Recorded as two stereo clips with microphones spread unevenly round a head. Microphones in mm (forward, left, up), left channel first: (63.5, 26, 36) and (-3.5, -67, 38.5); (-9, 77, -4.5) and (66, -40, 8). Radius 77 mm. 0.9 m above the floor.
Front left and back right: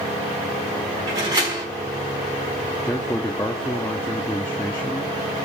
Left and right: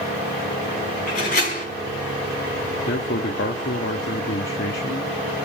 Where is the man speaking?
125° left, 1.4 m.